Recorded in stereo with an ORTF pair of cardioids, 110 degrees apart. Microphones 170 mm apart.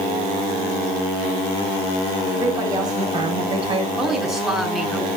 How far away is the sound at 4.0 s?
About 4.5 m.